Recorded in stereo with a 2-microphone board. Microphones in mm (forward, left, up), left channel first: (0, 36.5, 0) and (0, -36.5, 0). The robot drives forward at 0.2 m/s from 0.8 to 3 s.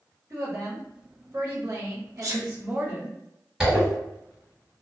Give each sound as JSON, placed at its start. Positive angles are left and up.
{"t": 0.3, "sound": "a woman speaking", "side_deg": -45, "distance_m": 0.9}
{"t": 2.2, "sound": "a sneeze", "side_deg": -45, "distance_m": 0.9}
{"t": 3.6, "sound": "a zipper", "side_deg": -5, "distance_m": 1.5}